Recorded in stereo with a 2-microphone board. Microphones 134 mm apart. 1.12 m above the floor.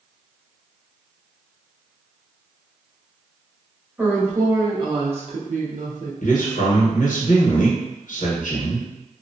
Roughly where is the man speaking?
Left.